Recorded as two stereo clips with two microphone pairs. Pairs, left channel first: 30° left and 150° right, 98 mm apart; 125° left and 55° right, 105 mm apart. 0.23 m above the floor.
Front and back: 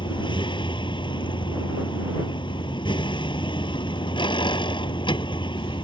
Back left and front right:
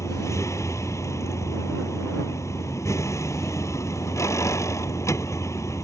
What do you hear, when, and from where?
0.0 s a vehicle: 65° left